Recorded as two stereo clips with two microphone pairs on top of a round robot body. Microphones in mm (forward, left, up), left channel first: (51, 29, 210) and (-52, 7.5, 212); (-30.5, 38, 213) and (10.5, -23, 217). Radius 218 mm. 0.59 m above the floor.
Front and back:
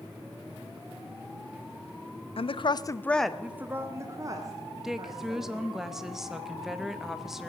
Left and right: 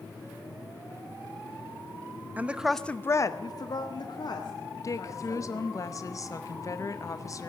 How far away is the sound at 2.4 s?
About 1.1 m.